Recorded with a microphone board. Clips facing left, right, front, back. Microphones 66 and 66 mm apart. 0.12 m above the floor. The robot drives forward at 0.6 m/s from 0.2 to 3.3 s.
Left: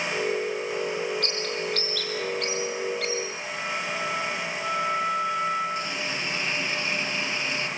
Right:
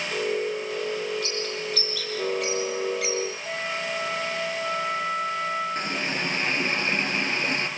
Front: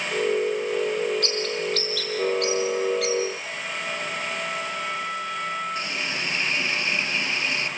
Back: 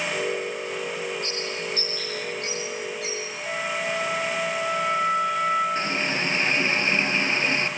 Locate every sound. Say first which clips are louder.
1.2 s a bird: left 1 dB, front 4 dB; 5° right, 3 m
3.5 s a flute: right 1 dB, back 4 dB; 115° right, 3.5 m
5.8 s a running tap: right 2 dB, back 4 dB; 125° right, 1.6 m